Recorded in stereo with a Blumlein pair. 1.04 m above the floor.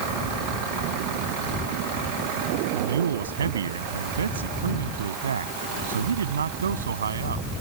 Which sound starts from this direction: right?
A man speaking, at 2.7 s.